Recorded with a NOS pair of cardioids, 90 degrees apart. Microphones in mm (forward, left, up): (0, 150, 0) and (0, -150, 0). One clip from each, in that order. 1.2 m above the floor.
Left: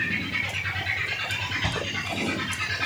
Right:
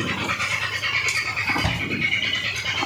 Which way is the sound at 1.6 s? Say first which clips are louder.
Right 3 dB; 30° right.